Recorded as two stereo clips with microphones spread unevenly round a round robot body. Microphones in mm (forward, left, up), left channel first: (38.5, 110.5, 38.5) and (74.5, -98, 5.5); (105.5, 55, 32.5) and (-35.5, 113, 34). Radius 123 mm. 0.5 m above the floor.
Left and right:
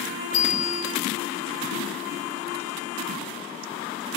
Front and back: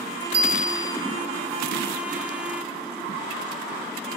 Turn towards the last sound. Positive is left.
turn(degrees=155)